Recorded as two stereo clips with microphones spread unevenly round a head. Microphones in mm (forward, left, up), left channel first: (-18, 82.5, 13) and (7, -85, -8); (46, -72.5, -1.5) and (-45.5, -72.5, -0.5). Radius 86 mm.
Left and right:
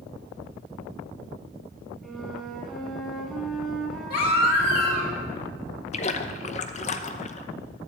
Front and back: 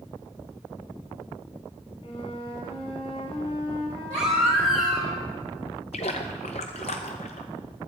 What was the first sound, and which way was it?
A flute, 15° left.